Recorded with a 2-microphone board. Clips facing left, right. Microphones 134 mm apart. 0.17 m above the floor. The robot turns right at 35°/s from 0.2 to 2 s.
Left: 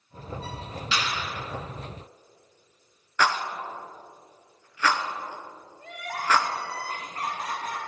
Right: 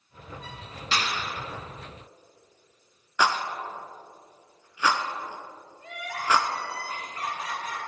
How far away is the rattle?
About 0.9 m.